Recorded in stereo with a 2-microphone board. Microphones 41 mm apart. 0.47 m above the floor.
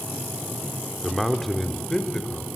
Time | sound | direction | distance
1.0 | a man speaking | centre (ahead or behind) | 1.2 m